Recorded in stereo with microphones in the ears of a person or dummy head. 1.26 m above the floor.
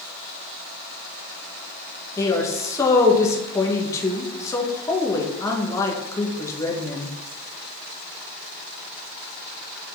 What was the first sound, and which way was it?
A woman speaking, 10° left (ahead or behind).